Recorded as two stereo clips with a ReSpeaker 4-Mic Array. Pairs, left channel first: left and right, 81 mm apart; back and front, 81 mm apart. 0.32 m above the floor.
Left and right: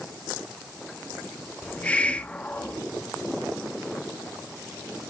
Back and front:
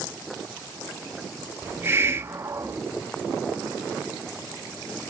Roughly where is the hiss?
Ahead left.